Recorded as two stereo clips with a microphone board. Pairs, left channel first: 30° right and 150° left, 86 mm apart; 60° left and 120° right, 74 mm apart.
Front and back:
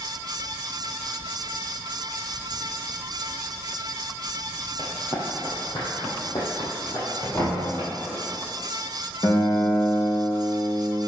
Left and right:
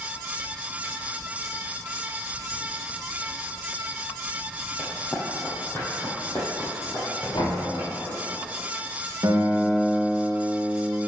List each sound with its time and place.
4.8 s running footsteps: straight ahead, 2.5 m; by 8.2 s 5° right, 6 m
7.3 s knocking: 30° left, 3 m
9.2 s a guitar: 80° right, 2 m